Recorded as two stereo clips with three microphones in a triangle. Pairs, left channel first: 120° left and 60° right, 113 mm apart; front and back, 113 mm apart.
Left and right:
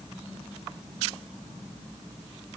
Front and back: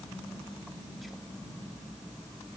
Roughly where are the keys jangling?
I don't hear keys jangling.